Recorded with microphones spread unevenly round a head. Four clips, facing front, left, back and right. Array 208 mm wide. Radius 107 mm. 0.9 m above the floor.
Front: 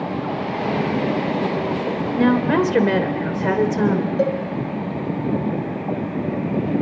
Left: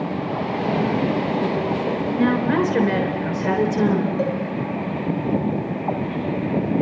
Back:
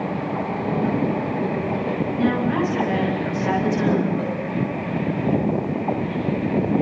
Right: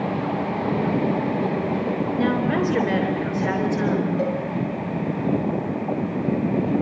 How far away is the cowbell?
About 2 m.